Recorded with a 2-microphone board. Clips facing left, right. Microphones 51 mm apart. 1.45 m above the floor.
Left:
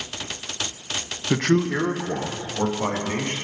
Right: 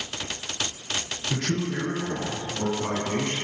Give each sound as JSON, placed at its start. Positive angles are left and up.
{"t": 1.3, "sound": "a man speaking", "side_deg": 60, "distance_m": 0.7}